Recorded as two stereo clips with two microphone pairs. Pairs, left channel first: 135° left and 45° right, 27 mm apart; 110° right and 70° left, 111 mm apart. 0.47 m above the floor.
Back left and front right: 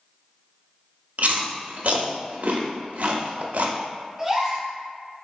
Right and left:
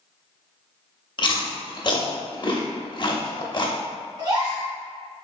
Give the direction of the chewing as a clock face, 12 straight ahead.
2 o'clock.